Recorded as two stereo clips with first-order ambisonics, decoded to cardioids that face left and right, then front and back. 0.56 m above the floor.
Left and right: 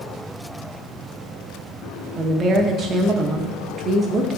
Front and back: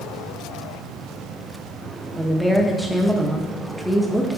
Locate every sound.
2.1 s a woman speaking: 95° right, 0.6 m